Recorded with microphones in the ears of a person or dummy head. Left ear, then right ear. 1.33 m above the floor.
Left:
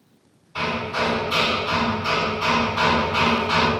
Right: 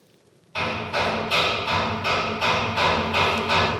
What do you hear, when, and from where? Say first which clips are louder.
0.6 s hammering: left 1 dB; 30° right (ahead or behind), 1.9 m